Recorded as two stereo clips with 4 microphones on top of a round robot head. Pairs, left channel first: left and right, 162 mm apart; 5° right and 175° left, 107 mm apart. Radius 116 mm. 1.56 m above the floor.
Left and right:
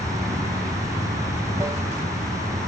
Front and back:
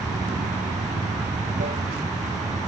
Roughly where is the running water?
Behind.